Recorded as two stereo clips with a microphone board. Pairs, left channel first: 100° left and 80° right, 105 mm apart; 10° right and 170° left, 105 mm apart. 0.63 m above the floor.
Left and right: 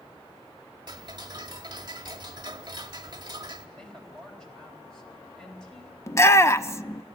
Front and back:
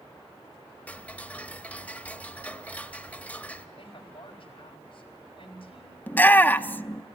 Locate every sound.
0.9 s ticking: 80° right, 1.1 m
3.8 s a woman speaking: 15° left, 4 m
6.1 s a shout: 55° left, 0.7 m